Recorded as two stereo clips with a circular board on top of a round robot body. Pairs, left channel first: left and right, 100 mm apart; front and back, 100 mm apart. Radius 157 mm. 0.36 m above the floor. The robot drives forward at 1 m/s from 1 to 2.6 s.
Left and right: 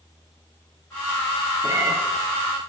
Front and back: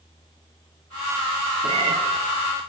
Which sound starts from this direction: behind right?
A cat meowing, at 1.6 s.